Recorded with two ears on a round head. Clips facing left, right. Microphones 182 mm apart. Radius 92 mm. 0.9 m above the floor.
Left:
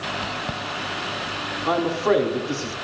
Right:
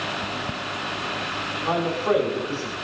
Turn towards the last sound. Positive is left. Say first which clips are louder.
# left 3 dB
turn(degrees=60)  # may be behind; listen again after turning